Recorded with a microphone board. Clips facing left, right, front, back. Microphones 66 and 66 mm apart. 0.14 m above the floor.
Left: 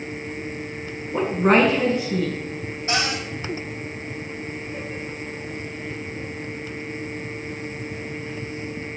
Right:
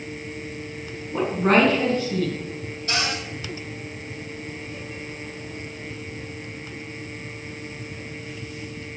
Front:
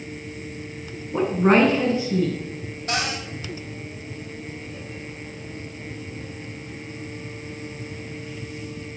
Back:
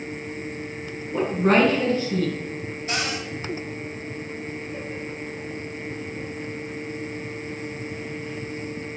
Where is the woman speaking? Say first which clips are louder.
Left 1 dB, front 2 dB; 30° left, 1.4 m.